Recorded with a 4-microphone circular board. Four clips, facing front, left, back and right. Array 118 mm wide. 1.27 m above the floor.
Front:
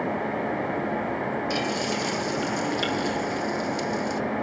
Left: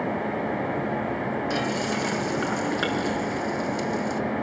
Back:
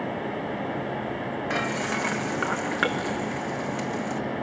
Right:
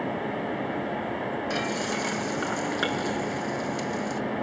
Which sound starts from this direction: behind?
Frying, at 1.5 s.